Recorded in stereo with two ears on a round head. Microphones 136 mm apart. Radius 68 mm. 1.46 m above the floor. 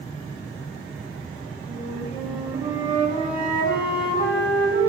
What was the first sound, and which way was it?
A flute, 30° left (ahead or behind).